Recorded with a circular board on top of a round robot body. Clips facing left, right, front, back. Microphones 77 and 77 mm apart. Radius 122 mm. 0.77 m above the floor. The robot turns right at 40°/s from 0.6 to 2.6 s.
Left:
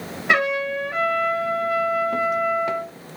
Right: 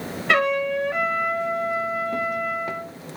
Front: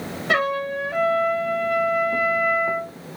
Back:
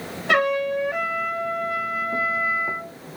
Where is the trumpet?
165° left, 2.5 m; by 2.9 s 115° right, 2.5 m.